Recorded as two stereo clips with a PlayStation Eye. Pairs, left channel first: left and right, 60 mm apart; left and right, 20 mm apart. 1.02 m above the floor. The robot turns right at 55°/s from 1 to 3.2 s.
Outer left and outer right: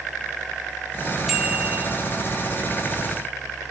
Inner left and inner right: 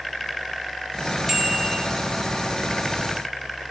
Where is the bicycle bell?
175° right, 5 m; by 1.9 s 145° right, 5 m.